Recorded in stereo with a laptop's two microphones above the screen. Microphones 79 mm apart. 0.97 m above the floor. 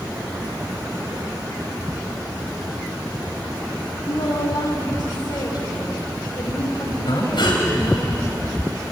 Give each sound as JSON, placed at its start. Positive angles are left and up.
{"t": 4.1, "sound": "a woman speaking", "side_deg": 55, "distance_m": 3.0}
{"t": 7.1, "sound": "breathing", "side_deg": 75, "distance_m": 4.0}